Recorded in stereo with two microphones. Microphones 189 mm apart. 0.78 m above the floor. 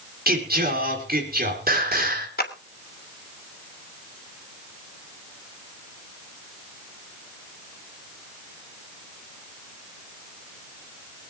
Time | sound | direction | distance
0.3 | singing | 55° right (ahead or behind) | 4 m
2.4 | a clap | 55° left (ahead or behind) | 2 m